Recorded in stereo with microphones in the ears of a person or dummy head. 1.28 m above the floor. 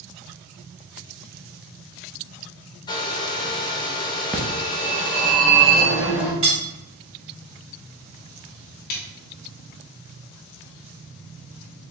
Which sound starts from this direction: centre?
A phone ringing, at 4.3 s.